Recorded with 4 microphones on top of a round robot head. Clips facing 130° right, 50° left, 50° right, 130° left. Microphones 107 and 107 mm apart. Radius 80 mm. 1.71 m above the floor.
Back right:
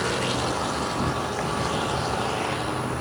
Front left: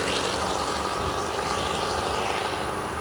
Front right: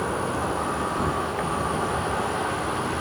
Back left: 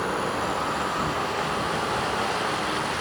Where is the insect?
110° right, 1.3 m.